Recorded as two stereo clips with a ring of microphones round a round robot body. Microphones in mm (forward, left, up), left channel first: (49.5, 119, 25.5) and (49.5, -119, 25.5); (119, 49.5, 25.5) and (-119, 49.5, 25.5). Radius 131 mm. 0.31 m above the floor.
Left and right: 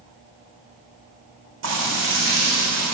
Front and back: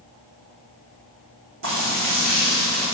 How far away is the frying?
About 5 m.